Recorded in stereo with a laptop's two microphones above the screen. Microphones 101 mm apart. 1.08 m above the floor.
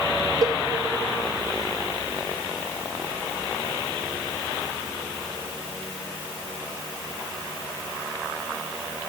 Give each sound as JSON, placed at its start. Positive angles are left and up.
{"t": 0.4, "sound": "a cowbell", "side_deg": -40, "distance_m": 4.0}